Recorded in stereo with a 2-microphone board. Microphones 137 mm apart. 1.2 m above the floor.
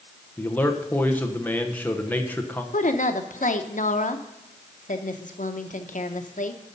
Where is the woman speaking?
70° left (ahead or behind), 0.8 m.